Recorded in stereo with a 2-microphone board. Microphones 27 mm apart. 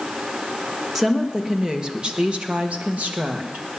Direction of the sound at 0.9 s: 15° right (ahead or behind).